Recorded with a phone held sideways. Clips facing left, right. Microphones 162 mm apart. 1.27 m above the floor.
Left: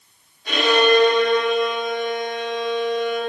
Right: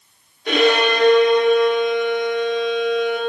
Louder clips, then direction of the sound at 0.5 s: Even; 60° right (ahead or behind).